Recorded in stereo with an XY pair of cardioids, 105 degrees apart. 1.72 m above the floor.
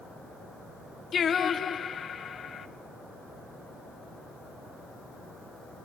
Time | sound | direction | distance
1.1 | singing | 45° left | 1.7 m